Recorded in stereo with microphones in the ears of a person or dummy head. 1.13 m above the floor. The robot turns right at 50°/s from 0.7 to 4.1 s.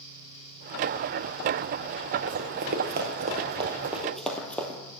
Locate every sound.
2.3 s running footsteps: 40° right (ahead or behind), 1.7 m; by 4.8 s 5° left (ahead or behind), 2.5 m